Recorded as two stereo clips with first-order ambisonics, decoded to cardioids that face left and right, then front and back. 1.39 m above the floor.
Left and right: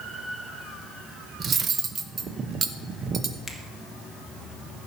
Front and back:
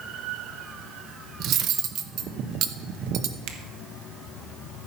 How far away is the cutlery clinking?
About 0.7 m.